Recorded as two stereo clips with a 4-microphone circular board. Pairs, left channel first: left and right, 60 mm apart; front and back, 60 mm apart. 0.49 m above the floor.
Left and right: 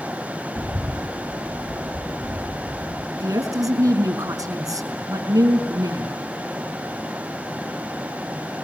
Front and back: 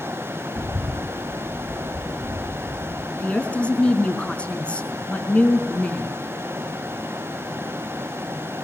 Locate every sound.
0.6 s a bird: 155° right, 2.5 m
3.2 s a woman speaking: 70° right, 5 m